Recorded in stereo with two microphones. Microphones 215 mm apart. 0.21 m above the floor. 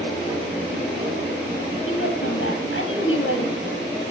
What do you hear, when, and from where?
1.9 s a woman speaking: 75° left (ahead or behind), 6 m